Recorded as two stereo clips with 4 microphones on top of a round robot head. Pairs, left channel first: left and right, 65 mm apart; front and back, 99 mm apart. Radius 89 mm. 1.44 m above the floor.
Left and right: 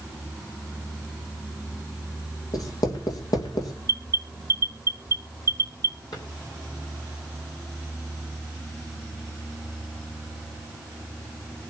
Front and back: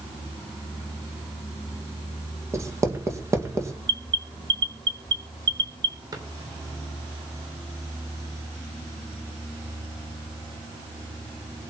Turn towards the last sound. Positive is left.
turn(degrees=130)